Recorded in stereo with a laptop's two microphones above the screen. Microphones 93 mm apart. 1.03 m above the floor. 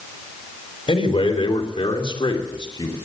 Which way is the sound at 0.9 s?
85° left.